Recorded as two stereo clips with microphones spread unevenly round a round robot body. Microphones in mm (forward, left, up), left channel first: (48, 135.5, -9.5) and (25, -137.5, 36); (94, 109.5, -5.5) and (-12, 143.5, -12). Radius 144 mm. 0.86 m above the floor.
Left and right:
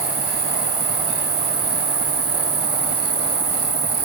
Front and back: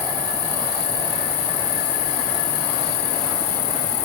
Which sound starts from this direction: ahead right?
An insect, at 0.0 s.